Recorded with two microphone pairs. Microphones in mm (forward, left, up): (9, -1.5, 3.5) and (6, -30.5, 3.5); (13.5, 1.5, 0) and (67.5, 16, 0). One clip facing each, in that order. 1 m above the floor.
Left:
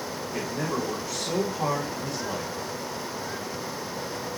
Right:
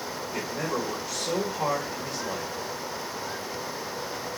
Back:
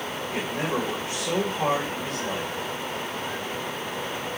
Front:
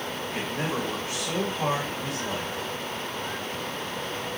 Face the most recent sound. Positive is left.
turn(degrees=-125)